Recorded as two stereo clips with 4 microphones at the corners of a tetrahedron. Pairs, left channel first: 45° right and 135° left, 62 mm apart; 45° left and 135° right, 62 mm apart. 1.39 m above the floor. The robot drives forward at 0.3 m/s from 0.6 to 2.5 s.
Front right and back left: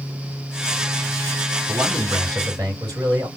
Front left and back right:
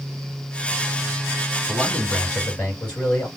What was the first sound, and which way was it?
A man speaking, 110° left.